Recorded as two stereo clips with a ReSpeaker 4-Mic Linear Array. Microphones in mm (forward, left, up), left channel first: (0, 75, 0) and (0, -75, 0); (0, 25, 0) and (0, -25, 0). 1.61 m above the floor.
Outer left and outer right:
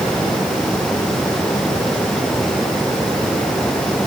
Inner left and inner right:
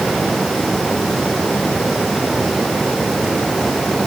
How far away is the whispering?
No whispering in this recording.